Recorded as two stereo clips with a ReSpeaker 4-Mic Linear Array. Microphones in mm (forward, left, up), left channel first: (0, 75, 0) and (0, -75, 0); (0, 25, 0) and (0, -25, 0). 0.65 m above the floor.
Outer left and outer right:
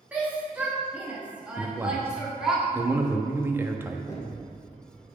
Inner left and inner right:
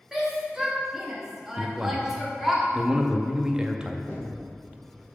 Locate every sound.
0.1 s a shout: 10° right (ahead or behind), 1.3 m; by 2.6 s 5° right (ahead or behind), 1.8 m
1.6 s a man speaking: 15° right (ahead or behind), 0.6 m
4.1 s knocking: 20° left (ahead or behind), 1.6 m